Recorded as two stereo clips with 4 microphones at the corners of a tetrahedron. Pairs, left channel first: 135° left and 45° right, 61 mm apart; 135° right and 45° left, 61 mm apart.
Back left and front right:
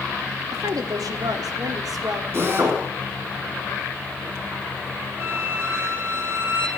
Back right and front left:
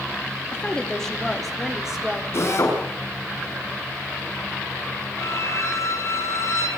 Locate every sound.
0.5 s a woman speaking: 65° right, 3 m; by 2.2 s 35° right, 4 m
2.3 s a drill: 95° right, 7 m
5.2 s a violin: 100° right, 6 m